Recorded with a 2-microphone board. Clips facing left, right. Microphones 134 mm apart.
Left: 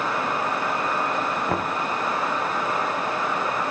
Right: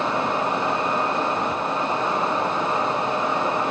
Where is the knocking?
60° left (ahead or behind).